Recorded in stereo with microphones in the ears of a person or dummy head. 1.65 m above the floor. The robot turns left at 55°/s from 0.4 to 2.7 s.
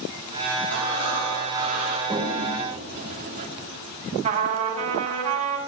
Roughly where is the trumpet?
Right.